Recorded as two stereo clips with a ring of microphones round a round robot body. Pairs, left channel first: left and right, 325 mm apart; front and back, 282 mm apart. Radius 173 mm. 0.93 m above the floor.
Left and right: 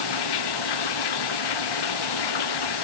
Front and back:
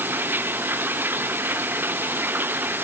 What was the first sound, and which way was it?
Running water, 95° left.